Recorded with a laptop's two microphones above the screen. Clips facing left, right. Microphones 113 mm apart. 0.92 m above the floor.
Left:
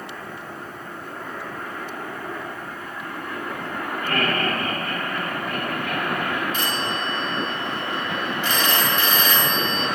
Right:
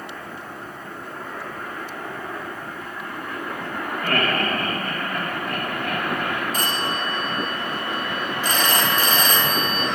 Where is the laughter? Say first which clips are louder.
Right 1 dB; 65° right (ahead or behind), 2.5 m; by 6.4 s 50° right (ahead or behind), 3 m.